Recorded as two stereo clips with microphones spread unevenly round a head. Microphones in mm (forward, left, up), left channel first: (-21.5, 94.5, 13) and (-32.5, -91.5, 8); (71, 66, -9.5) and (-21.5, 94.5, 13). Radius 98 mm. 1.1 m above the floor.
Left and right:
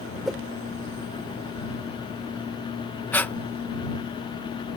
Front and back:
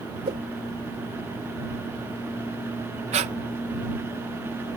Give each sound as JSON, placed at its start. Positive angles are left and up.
{"t": 0.2, "sound": "a whoosh", "azimuth_deg": 175}
{"t": 3.1, "sound": "breathing", "azimuth_deg": 165}